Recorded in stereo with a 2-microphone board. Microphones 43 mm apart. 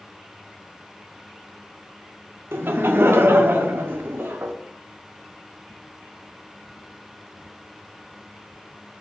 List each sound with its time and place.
2.5 s laughter: 55° right (ahead or behind), 0.5 m